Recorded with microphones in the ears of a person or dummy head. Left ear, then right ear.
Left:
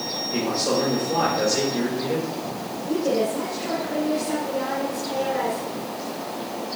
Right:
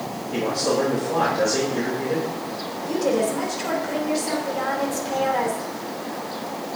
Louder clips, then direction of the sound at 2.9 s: Right 1 dB; 30° right (ahead or behind).